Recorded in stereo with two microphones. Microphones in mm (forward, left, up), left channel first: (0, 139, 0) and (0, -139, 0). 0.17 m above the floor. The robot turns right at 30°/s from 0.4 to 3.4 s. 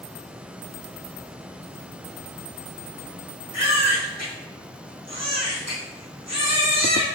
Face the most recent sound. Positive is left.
turn(degrees=-70)  # may be behind; listen again after turning